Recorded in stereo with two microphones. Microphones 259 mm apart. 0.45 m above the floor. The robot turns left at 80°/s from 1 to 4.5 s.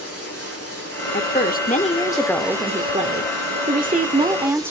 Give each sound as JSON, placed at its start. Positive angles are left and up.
{"t": 0.0, "sound": "running water", "azimuth_deg": 115, "distance_m": 8.5}
{"t": 1.1, "sound": "a woman speaking", "azimuth_deg": 105, "distance_m": 1.1}